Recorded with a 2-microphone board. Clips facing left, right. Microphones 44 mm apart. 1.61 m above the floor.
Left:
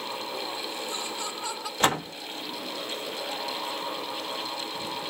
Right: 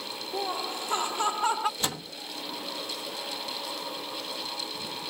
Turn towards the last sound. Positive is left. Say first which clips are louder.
# left 9 dB
turn(degrees=55)  # may be behind; listen again after turning